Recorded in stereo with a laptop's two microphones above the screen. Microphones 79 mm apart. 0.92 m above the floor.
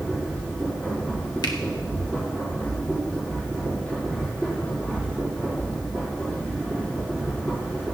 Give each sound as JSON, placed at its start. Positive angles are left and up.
{"t": 0.0, "sound": "a machine running", "side_deg": 15, "distance_m": 5.0}
{"t": 1.4, "sound": "a finger snap", "side_deg": 60, "distance_m": 1.0}